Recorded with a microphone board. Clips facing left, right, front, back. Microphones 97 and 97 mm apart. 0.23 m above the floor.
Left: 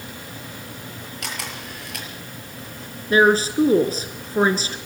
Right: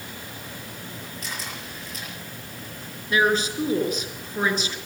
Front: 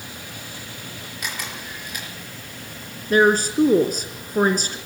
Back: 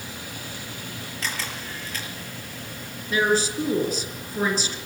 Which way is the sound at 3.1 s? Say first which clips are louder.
Left 6 dB, front 5 dB; 35° left.